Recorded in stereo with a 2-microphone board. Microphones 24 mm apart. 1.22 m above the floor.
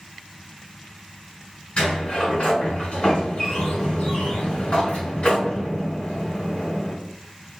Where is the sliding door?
50° left (ahead or behind), 1.4 m.